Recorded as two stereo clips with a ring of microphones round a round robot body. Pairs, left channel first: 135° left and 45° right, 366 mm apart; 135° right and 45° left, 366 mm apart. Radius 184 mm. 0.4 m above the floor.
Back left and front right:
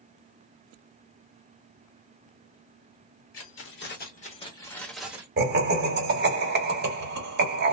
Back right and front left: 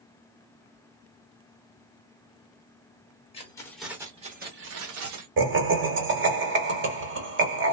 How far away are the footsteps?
I don't hear footsteps.